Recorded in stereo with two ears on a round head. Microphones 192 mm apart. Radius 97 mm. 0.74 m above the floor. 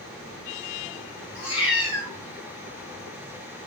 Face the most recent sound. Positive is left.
turn(degrees=30)  # may be behind; listen again after turning